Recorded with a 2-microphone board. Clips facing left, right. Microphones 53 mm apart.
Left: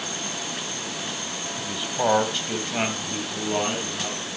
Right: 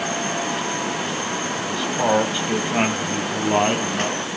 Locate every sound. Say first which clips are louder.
1.6 s a man speaking: right 1 dB; 15° left (ahead or behind), 1.5 m; by 4.2 s 45° right (ahead or behind), 2 m